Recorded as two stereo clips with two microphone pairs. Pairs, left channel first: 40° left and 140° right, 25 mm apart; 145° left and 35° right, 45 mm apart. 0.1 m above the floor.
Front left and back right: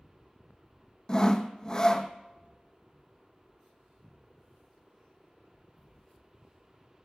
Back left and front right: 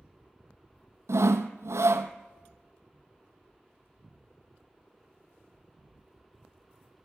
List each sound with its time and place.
1.1 s sawing: 25° right, 0.6 m